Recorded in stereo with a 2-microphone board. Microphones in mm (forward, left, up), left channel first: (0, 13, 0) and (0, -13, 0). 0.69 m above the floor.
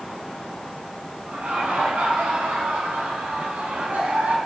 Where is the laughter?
80° right, 8.5 m.